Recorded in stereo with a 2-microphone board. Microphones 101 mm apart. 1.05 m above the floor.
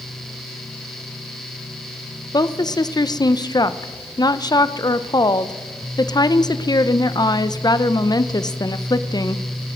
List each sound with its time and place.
2.3 s a woman speaking: 40° left (ahead or behind), 0.5 m